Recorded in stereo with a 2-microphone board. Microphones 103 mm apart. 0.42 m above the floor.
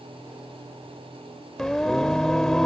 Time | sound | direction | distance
1.6 | singing | 5° left (ahead or behind) | ?